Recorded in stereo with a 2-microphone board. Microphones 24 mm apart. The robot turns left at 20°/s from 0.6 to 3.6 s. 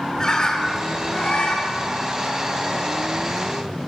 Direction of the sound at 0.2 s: 30° left (ahead or behind).